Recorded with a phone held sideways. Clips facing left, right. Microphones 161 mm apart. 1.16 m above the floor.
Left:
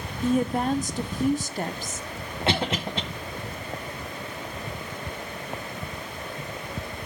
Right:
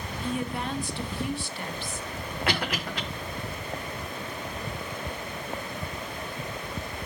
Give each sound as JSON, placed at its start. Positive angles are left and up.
{"t": 0.2, "sound": "a woman speaking", "side_deg": 40, "distance_m": 0.6}
{"t": 2.5, "sound": "a cough", "side_deg": 25, "distance_m": 0.9}